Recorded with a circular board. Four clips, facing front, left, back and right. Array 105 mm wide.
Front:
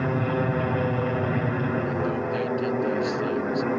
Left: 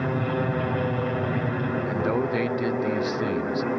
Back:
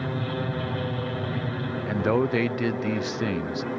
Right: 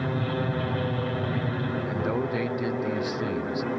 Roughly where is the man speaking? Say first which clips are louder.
Left 3 dB, back 3 dB; behind.